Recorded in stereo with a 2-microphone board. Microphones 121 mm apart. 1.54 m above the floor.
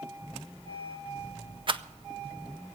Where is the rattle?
45° right (ahead or behind), 0.5 m.